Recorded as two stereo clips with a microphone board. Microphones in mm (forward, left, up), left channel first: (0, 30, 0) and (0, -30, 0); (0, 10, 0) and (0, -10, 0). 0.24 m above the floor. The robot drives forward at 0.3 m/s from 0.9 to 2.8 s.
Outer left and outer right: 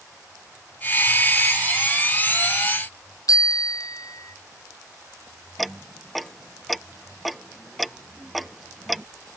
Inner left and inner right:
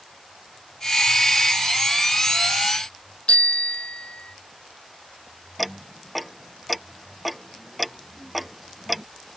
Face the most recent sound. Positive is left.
turn(degrees=0)  # may be behind; listen again after turning